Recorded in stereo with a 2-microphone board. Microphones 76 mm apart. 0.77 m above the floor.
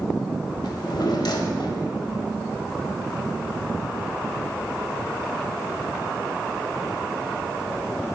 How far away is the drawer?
About 1.1 m.